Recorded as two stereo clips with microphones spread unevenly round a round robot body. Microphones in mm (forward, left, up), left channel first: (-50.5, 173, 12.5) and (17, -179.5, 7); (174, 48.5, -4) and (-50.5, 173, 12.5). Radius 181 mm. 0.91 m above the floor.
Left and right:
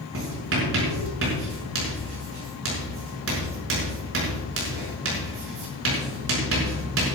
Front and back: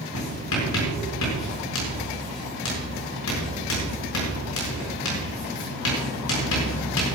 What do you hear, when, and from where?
0.1 s writing: 20° right, 7 m